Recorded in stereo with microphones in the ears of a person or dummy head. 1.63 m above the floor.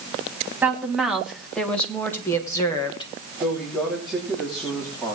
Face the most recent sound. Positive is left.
turn(degrees=0)  # may be behind; listen again after turning